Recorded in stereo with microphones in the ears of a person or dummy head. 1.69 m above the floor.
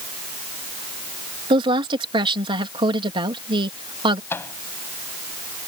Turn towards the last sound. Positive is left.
turn(degrees=15)  # may be behind; listen again after turning